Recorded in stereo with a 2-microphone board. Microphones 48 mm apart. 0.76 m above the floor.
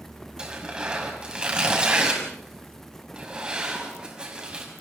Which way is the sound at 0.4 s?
20° right (ahead or behind).